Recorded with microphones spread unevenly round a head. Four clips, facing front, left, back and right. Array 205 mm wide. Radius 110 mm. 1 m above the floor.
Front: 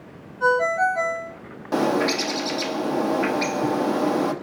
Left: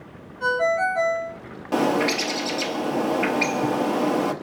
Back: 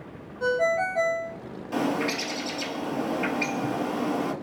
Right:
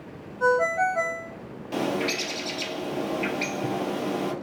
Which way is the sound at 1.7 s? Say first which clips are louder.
Left 6 dB, front 6 dB; 45° left.